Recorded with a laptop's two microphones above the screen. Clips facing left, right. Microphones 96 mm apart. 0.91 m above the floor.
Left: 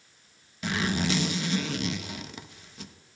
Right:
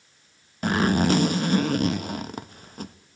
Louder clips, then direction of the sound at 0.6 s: Right 7 dB; 45° right (ahead or behind).